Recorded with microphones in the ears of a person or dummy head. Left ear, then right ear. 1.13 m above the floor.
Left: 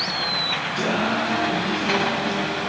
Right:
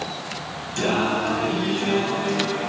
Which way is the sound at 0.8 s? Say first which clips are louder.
Right 5 dB; 30° right (ahead or behind).